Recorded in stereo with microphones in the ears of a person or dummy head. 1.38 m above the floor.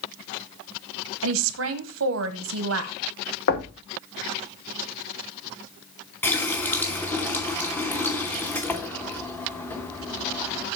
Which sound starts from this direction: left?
Knocking, at 3.5 s.